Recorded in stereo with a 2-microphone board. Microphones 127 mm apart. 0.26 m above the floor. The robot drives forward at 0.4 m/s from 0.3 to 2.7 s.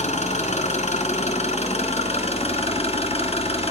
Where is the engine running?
70° left (ahead or behind), 1.9 m; by 3.7 s 60° left (ahead or behind), 2 m.